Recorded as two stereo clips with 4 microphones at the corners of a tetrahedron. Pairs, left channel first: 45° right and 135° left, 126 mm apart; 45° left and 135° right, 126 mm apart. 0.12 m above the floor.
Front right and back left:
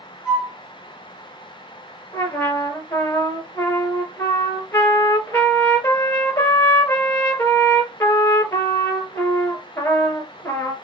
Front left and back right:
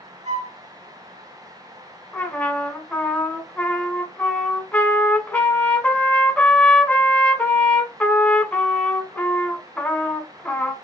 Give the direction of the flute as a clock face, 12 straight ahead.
5 o'clock.